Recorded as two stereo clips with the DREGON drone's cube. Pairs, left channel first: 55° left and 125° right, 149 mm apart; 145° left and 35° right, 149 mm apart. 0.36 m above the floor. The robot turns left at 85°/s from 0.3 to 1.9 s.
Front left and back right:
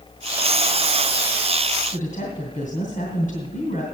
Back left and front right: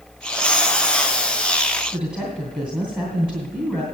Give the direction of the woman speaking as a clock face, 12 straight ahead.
10 o'clock.